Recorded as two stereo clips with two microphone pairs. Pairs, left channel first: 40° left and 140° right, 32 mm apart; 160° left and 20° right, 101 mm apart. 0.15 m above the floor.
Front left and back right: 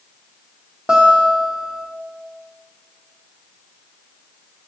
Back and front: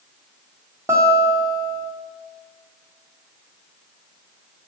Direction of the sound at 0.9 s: 80° right.